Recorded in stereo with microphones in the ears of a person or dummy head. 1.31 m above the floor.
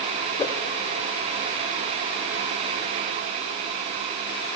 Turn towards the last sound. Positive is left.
turn(degrees=10)  # may be behind; listen again after turning